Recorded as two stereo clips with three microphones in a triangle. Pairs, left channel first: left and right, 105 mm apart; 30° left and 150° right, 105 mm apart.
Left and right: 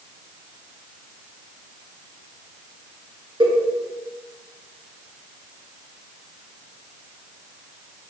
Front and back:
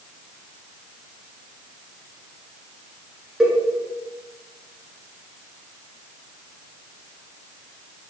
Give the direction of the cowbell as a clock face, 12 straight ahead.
2 o'clock.